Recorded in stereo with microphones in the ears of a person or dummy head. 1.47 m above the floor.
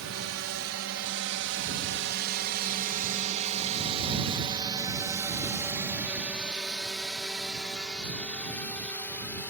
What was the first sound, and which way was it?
A drone, 75° right (ahead or behind).